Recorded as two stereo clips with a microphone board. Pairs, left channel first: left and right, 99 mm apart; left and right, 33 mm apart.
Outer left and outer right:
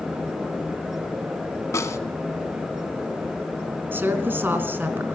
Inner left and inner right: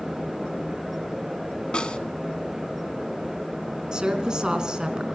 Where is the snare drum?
30° left (ahead or behind), 1.1 m.